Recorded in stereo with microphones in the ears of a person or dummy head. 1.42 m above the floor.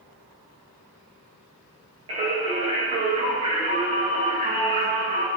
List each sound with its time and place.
2.1 s singing: 35° right (ahead or behind), 1.8 m